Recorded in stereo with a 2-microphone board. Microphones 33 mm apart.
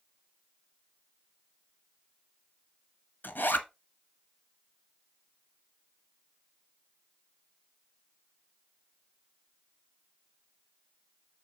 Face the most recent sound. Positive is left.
turn(degrees=70)  # may be behind; listen again after turning